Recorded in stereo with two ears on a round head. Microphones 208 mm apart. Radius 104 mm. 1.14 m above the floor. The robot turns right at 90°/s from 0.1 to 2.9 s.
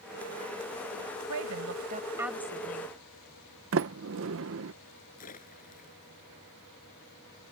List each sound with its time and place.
1.3 s a woman speaking: 95° right; by 2.9 s 50° left
3.7 s a sliding door: 60° right (ahead or behind)
5.2 s a splash: 35° left (ahead or behind)